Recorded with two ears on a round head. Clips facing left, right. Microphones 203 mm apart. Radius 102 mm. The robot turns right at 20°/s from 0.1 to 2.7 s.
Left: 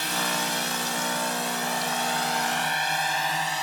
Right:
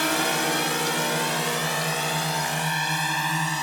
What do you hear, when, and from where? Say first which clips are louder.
0.0 s a drone: right 6 dB; 55° right (ahead or behind); by 3.6 s 70° right (ahead or behind)